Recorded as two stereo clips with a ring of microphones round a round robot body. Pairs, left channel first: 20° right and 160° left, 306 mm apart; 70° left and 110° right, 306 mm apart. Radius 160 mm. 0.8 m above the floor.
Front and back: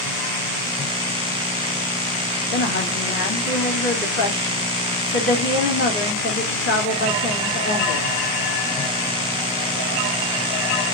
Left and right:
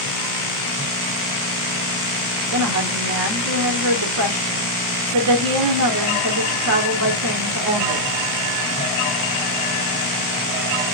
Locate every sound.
2.5 s a woman speaking: 75° right, 2.5 m